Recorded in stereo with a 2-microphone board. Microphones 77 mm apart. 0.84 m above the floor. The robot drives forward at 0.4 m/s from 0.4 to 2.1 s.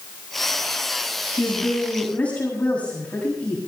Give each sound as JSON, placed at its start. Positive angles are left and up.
{"t": 1.4, "sound": "a woman speaking", "side_deg": 20, "distance_m": 6.5}